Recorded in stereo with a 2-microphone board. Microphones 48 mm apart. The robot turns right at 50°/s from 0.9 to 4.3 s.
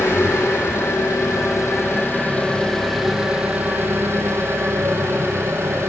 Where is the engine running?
75° left, 4 m; by 5.9 s 115° right, 4 m.